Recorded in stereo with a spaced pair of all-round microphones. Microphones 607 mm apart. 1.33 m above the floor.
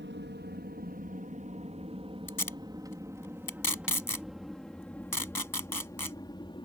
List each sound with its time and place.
0.0 s an aircraft: 20° right (ahead or behind); by 6.6 s 10° left (ahead or behind)
2.3 s tape being pulled: 35° left (ahead or behind)